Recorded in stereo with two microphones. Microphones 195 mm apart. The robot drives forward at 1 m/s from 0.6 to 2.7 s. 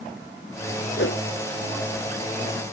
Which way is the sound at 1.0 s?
75° left (ahead or behind).